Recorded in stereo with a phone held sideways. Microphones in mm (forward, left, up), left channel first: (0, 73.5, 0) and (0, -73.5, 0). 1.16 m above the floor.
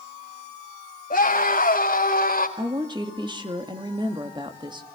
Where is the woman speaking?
30° right (ahead or behind), 2.5 m.